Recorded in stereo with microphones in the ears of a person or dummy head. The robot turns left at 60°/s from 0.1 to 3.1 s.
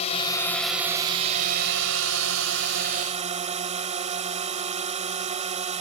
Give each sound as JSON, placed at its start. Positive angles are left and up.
{"t": 0.0, "sound": "a drone", "azimuth_deg": 35}